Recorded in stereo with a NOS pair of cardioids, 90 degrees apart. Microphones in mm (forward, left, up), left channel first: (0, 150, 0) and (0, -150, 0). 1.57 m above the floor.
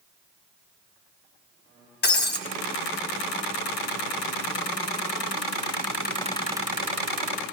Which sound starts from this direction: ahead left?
Breaking glass, at 2.0 s.